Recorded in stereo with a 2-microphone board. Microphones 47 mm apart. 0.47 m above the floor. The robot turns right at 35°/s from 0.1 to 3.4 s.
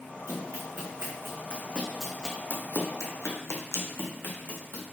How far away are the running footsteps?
About 3 m.